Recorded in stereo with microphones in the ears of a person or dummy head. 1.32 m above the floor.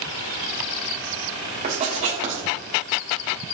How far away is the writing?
About 3 m.